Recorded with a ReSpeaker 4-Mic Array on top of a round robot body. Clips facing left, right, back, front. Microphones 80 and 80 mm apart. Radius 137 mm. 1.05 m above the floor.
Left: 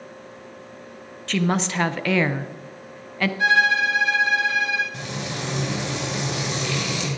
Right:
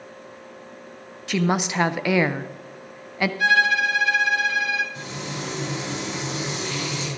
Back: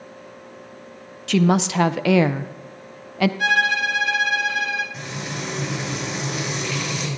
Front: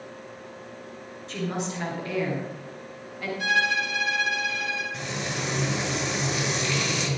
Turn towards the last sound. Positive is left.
turn(degrees=90)